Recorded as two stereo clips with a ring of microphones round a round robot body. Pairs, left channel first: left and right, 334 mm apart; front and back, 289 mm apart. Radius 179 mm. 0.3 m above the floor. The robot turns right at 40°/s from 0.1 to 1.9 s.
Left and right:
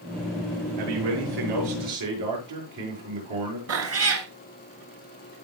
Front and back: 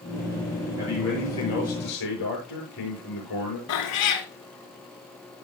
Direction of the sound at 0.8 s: 105° right.